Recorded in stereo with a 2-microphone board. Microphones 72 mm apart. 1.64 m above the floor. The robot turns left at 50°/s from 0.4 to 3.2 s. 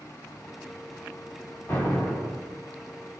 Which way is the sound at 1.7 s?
25° left.